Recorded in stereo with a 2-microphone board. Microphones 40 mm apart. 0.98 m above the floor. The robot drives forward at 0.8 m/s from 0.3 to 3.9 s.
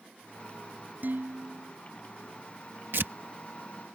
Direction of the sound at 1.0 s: 50° right (ahead or behind).